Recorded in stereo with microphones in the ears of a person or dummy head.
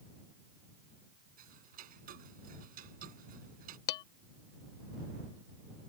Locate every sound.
1.4 s ticking: 50° right (ahead or behind)
3.9 s dishes clattering: 25° left (ahead or behind)